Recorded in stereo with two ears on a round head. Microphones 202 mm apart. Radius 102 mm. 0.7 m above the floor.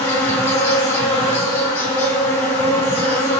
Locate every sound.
0.0 s an insect: 10° left (ahead or behind), 1.5 m